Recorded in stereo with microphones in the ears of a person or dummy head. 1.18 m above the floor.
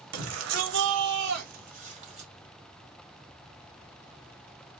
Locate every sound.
0.1 s a shout: 80° right, 1.4 m; by 2.3 s 30° right (ahead or behind), 1.4 m